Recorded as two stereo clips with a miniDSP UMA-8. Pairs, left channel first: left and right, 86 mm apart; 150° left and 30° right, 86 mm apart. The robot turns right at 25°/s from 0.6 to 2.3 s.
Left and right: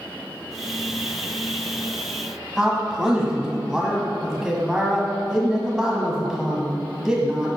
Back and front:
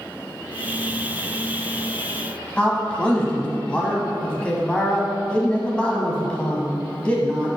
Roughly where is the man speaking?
Behind.